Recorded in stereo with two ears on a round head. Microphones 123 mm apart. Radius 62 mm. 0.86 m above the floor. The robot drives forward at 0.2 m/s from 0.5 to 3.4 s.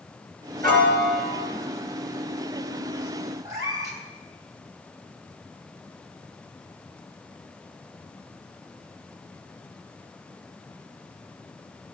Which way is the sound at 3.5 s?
25° right (ahead or behind).